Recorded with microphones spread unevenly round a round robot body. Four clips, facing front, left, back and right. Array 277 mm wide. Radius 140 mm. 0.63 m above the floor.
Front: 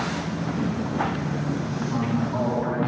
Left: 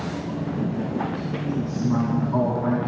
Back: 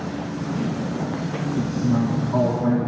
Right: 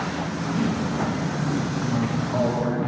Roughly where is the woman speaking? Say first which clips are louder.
Left 1 dB, back 5 dB; behind left.